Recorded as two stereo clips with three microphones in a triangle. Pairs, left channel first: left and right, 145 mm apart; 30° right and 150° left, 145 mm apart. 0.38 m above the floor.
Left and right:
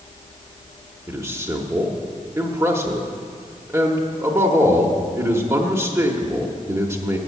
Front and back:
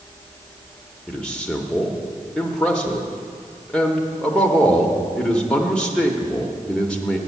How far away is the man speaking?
About 0.8 m.